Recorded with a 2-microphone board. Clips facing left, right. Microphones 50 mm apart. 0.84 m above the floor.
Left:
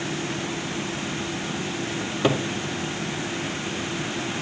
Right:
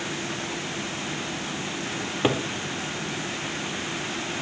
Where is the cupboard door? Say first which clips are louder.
Left 1 dB; 15° right (ahead or behind), 3 m.